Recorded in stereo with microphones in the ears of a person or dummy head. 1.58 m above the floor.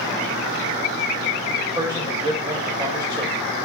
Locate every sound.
1.8 s a man speaking: 20° right (ahead or behind), 0.7 m